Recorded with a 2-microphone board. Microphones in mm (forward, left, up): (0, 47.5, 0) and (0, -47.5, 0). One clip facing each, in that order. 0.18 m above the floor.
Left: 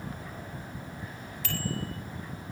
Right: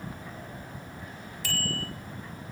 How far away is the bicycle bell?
About 4.5 m.